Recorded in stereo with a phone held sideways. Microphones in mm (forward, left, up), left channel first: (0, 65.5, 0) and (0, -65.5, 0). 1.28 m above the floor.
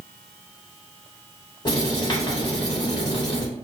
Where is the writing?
35° left (ahead or behind), 1.3 m.